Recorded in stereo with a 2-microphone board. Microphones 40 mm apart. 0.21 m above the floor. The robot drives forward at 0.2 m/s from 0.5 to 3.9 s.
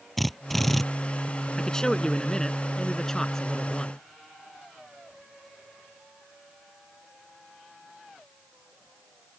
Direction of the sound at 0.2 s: Centre (ahead or behind).